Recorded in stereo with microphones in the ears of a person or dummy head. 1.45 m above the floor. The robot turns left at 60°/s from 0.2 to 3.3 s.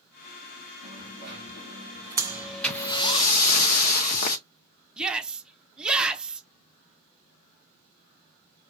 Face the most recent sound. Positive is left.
turn(degrees=-10)  # may be behind; listen again after turning